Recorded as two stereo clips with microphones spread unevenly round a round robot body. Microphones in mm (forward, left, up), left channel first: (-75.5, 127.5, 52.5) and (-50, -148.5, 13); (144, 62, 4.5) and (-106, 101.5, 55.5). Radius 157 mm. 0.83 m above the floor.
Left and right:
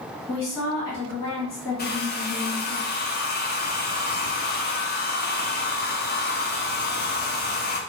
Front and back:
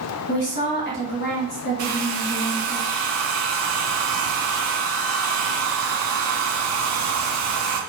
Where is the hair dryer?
150° left, 0.6 m.